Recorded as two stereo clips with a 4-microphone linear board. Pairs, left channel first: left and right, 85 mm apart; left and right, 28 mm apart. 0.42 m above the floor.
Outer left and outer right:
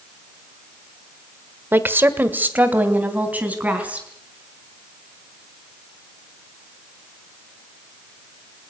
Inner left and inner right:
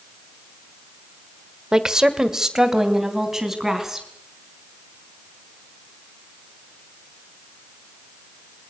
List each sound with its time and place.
1.7 s a woman speaking: 25° right (ahead or behind), 1.4 m; by 4.1 s 15° right (ahead or behind), 4.5 m